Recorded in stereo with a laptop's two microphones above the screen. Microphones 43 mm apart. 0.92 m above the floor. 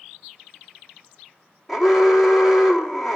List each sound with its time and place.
1.7 s an alarm: centre (ahead or behind), 2.5 m